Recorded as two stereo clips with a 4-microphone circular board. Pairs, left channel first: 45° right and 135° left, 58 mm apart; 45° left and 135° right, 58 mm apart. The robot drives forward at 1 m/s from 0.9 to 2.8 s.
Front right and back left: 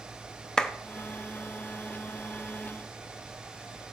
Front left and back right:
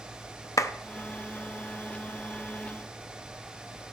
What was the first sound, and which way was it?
A clap, 30° left.